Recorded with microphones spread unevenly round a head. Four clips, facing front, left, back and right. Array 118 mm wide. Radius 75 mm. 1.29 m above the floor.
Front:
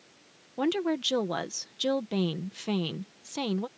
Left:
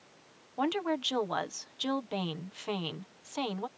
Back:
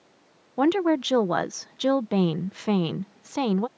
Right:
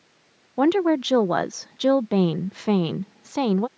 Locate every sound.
0.6 s a woman speaking: 110° right